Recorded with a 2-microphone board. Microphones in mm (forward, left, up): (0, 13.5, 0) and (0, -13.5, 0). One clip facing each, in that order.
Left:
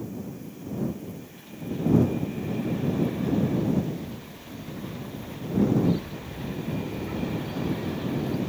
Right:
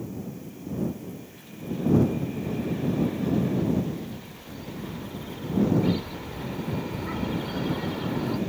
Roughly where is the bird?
Right.